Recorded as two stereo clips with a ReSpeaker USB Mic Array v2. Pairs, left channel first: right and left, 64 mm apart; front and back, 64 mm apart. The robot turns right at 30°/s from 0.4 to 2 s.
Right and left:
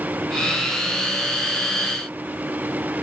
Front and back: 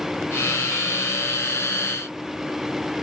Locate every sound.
Only background noise.